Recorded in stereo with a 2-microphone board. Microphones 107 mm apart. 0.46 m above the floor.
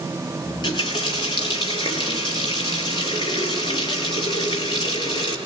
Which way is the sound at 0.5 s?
45° left (ahead or behind).